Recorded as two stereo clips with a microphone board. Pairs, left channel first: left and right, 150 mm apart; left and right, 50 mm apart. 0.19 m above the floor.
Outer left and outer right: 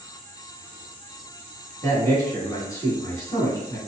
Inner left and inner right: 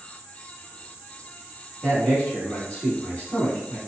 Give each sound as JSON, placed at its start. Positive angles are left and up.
{"t": 1.8, "sound": "a man speaking", "side_deg": 25, "distance_m": 1.5}